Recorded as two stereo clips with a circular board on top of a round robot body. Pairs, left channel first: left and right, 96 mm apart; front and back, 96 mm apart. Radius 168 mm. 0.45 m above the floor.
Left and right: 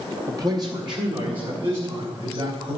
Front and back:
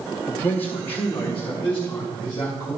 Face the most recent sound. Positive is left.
turn(degrees=-65)